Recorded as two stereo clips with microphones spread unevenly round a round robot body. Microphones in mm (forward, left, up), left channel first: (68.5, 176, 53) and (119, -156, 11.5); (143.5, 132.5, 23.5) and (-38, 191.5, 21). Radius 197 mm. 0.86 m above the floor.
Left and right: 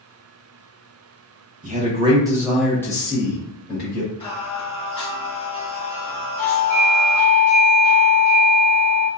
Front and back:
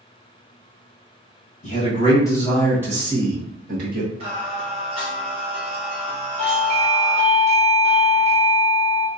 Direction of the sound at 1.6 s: 40° right.